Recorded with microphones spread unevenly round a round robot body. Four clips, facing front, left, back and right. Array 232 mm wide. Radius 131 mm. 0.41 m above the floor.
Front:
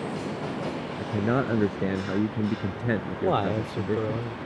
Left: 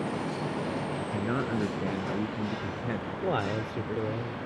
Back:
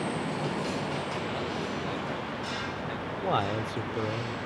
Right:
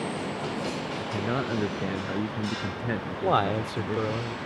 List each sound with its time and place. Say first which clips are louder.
1.0 s a man speaking: right 3 dB, front 7 dB; straight ahead; by 4.2 s 20° right
3.2 s a man speaking: right 6 dB, front 3 dB; 25° right